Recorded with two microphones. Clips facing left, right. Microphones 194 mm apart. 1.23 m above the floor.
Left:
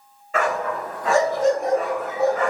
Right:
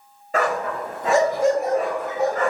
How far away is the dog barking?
About 1.2 m.